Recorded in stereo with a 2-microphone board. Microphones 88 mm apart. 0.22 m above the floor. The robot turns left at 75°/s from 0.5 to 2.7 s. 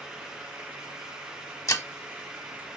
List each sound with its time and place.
1.7 s breaking glass: 40° left (ahead or behind), 0.8 m; by 1.9 s 35° left (ahead or behind), 0.8 m